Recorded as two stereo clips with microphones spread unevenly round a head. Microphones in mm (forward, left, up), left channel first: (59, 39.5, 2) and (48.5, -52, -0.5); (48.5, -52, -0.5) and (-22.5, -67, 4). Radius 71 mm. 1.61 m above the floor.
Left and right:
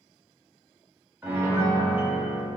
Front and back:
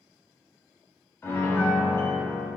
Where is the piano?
35° right, 0.7 m.